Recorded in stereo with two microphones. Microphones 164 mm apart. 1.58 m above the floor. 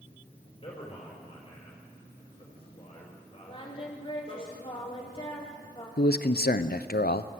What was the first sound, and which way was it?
A man speaking, 35° left (ahead or behind).